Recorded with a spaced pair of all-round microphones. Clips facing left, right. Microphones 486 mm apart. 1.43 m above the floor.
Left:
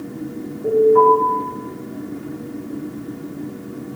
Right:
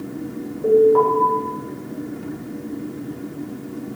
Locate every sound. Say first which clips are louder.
0.6 s an alarm: even; 80° right, 6 m